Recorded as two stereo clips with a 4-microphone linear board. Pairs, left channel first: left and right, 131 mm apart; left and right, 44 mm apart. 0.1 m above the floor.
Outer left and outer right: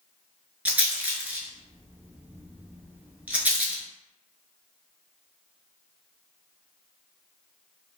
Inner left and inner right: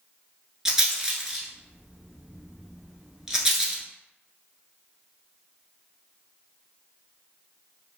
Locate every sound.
0.7 s a rattle: 10° right (ahead or behind), 0.7 m